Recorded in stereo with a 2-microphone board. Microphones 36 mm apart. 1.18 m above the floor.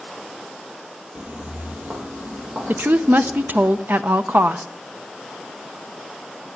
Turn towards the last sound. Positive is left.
turn(degrees=-60)  # may be behind; listen again after turning